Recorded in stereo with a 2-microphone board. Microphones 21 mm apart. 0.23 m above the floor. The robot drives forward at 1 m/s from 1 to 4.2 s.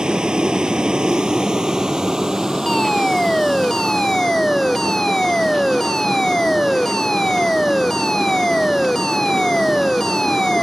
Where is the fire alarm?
30° left (ahead or behind); by 10.6 s 35° left (ahead or behind).